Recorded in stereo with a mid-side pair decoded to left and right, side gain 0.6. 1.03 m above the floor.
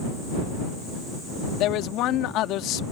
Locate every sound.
1.6 s a man speaking: 65° left